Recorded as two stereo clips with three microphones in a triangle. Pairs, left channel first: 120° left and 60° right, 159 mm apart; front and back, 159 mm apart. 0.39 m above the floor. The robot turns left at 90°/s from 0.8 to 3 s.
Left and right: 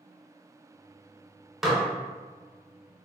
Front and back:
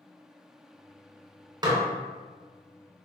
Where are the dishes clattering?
145° right, 0.5 m; by 1.8 s 160° right, 0.5 m.